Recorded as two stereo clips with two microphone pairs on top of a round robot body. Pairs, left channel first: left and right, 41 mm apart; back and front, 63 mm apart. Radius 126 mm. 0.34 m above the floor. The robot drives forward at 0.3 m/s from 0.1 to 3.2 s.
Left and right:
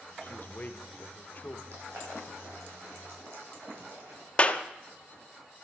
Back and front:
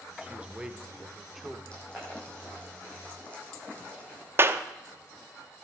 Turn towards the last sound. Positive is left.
turn(degrees=40)